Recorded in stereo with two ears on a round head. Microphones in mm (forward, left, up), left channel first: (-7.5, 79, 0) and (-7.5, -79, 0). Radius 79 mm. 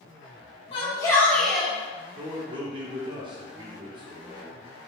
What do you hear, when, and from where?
0.7 s a shout: 30° left (ahead or behind), 0.9 m; by 1.7 s 10° right (ahead or behind), 0.9 m
2.2 s a man speaking: 25° right (ahead or behind), 0.6 m